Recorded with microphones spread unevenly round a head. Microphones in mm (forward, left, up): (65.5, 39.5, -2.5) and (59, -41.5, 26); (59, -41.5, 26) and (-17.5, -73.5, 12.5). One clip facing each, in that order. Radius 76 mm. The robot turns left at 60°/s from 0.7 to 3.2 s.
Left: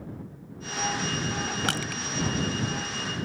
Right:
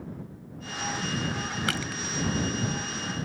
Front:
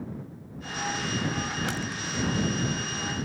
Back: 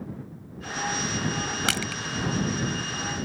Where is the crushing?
165° left; by 2.0 s 140° left.